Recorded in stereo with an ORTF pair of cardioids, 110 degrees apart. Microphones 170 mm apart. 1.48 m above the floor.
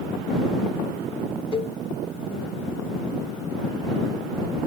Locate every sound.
1.5 s a cowbell: 35° left